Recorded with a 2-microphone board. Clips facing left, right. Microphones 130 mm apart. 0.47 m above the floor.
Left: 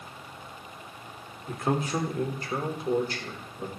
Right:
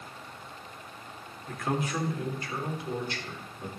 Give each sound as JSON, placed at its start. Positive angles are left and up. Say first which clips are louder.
{"t": 1.5, "sound": "a man speaking", "louder": "left 3 dB", "side_deg": 25, "distance_m": 1.2}